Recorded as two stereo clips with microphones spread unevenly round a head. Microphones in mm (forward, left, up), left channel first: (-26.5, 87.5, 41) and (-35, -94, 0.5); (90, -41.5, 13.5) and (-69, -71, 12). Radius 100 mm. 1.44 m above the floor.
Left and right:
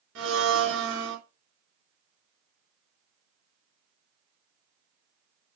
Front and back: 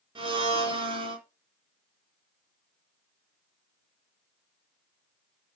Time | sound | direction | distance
0.1 | a blender | 110° right | 4.5 m